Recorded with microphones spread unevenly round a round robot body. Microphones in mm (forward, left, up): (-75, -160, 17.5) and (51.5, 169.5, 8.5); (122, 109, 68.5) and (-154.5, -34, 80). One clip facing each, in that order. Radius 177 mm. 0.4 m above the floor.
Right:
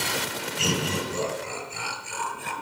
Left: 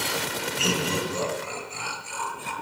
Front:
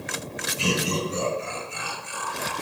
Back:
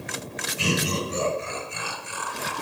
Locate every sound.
0.6 s laughter: 175° right, 8 m; by 2.5 s straight behind, 6.5 m